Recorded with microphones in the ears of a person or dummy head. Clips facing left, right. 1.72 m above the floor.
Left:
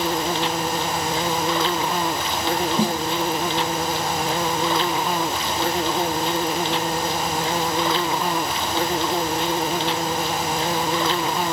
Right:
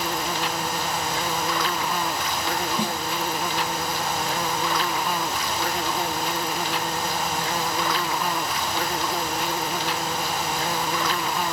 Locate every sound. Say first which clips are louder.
0.0 s an insect: left 5 dB; 30° left (ahead or behind)
2.8 s a snare drum: left 6 dB; 35° left (ahead or behind)